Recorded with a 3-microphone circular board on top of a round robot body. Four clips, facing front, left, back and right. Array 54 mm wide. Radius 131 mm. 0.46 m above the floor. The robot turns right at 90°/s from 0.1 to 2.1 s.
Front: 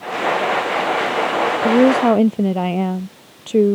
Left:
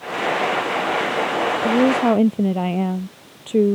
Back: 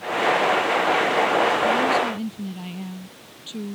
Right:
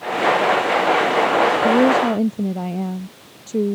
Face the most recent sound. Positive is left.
turn(degrees=20)